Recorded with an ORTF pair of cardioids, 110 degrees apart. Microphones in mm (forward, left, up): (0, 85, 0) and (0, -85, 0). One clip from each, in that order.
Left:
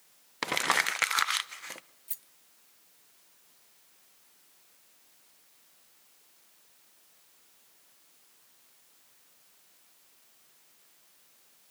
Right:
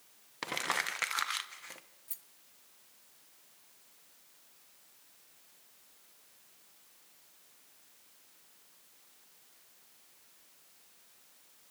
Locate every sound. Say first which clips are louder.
0.4 s crumpling: left 7 dB; 35° left, 0.9 m
2.1 s a rattle: left 4 dB; 25° left, 1.2 m